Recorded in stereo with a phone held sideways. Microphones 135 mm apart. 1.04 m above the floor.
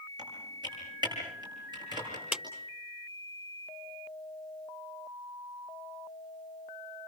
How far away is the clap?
About 3.5 m.